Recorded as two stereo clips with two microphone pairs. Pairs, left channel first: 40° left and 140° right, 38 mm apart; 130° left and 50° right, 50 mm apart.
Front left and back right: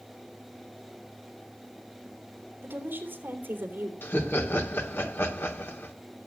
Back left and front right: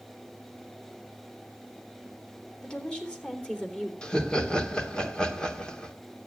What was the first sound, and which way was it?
A woman speaking, 160° right.